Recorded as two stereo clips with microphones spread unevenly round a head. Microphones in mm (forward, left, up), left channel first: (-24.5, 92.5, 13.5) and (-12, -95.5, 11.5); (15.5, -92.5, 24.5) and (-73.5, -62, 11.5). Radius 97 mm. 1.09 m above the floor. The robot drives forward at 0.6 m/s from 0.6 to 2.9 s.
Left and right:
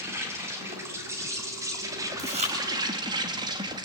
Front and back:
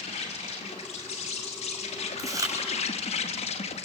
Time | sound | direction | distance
0.0 | an insect | 10° right | 3 m
2.2 | chewing | 145° right | 6.5 m